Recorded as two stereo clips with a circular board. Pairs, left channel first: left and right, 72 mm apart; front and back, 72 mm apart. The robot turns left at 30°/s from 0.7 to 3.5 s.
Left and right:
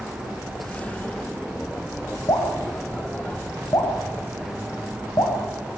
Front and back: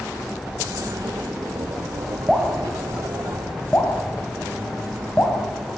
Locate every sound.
2.3 s dripping: 100° left, 4.5 m; by 5.8 s 60° left, 4.5 m